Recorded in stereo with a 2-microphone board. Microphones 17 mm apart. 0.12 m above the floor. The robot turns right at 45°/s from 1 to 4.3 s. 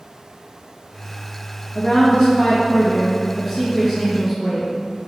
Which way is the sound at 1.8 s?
70° left.